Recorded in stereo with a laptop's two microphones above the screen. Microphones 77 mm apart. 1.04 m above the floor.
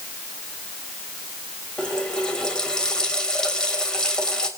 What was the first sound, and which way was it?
A running tap, 10° left (ahead or behind).